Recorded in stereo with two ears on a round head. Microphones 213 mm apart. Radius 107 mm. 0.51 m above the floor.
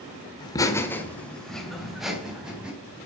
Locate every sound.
0.4 s laughter: 20° left (ahead or behind), 1.4 m; by 2.7 s 5° right (ahead or behind), 4 m